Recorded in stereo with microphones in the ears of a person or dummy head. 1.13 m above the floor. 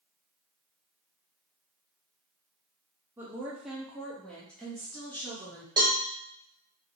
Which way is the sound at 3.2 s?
10° right (ahead or behind).